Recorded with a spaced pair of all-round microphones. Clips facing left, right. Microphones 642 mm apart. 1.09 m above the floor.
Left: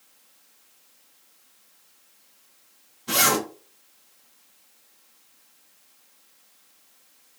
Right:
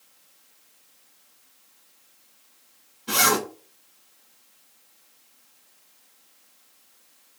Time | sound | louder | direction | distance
3.1 | a zipper | even | 10° left (ahead or behind) | 1.4 m